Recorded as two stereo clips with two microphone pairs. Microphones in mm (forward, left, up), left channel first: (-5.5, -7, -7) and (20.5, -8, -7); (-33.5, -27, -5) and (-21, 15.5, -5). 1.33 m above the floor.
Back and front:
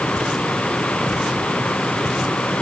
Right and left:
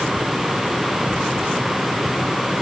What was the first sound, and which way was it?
Only background noise.